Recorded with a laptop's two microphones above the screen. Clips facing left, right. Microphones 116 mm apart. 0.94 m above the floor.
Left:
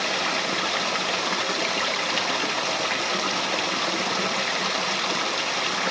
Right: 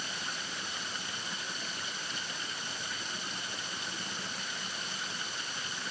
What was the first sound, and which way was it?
Running water, 80° left.